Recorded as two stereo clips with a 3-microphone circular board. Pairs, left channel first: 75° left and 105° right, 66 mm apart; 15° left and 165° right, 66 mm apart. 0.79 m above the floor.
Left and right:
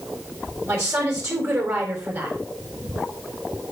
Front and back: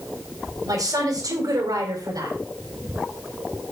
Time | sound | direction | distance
0.6 | a woman speaking | 150° right | 3.5 m